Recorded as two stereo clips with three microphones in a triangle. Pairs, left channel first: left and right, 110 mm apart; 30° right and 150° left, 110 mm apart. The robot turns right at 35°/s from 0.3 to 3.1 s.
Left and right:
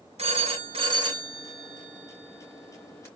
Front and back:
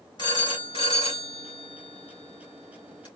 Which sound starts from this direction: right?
A phone ringing, at 0.2 s.